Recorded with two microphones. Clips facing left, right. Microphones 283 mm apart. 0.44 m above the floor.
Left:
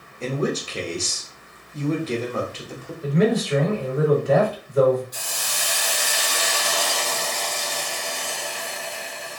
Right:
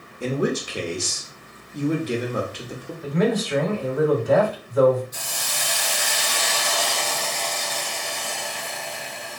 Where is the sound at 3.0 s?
35° left (ahead or behind), 1.9 m.